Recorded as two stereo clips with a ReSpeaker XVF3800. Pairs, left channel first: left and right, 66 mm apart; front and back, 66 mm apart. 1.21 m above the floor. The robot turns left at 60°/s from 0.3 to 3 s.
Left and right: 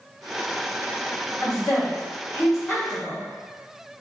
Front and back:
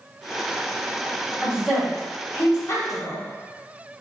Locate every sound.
1.4 s a woman speaking: 115° left, 1.4 m; by 3.2 s 20° left, 1.4 m